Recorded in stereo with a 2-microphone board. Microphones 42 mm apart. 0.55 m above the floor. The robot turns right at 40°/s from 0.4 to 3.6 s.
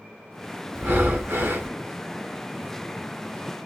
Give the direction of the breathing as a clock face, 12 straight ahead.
4 o'clock.